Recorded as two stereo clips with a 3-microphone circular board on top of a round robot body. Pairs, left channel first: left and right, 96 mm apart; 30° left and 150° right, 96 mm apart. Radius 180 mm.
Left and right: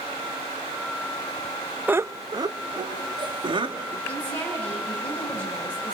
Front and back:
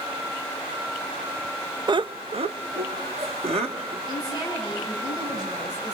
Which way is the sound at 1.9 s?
160° right.